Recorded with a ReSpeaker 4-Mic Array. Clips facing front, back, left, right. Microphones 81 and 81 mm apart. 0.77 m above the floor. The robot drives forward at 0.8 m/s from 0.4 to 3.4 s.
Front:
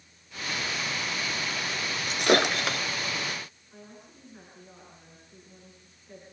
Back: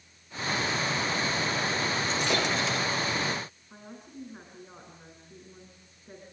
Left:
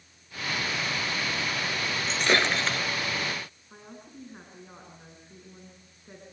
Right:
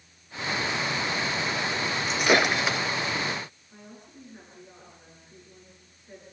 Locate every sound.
2.1 s breaking glass: 10° right, 2.5 m; by 2.8 s 15° right, 1.8 m
3.7 s a woman speaking: 130° left, 7.5 m